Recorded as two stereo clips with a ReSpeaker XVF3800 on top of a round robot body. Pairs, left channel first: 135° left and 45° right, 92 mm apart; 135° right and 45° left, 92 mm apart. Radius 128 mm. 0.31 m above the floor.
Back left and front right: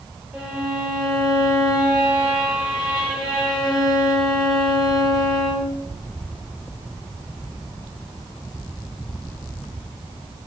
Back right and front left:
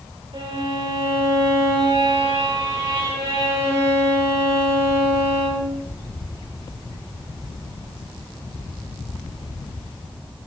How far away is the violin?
About 5 m.